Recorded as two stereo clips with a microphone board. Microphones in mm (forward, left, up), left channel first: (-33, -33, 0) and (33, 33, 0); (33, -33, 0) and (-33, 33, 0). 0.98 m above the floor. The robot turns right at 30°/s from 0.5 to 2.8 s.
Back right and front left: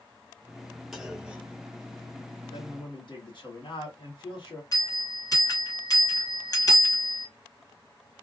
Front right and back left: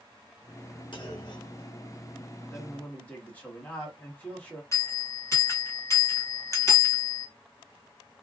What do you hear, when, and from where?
0.9 s a clunk: 40° right, 0.7 m; by 2.3 s straight ahead, 0.7 m
2.5 s a man speaking: 125° right, 1.4 m; by 4.6 s 115° right, 1.4 m
4.7 s a bell: 95° right, 1.3 m